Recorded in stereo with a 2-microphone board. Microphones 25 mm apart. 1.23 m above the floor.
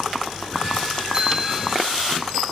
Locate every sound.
1.1 s a bicycle bell: 35° right (ahead or behind), 6.5 m